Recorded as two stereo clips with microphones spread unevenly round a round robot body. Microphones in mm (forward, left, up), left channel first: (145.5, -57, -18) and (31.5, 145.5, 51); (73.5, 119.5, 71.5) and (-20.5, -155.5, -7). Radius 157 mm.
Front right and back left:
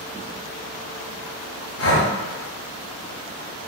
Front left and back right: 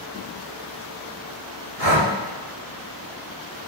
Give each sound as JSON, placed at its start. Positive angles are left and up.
{"t": 1.8, "sound": "breathing", "azimuth_deg": -55, "distance_m": 2.0}